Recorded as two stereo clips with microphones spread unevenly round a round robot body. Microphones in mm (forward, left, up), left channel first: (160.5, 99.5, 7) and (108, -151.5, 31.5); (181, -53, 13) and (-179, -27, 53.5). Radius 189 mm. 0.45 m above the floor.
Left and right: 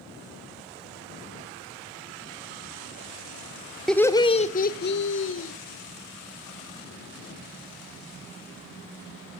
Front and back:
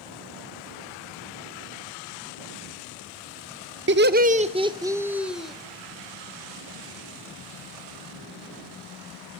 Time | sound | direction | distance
3.9 | laughter | 150° left | 0.8 m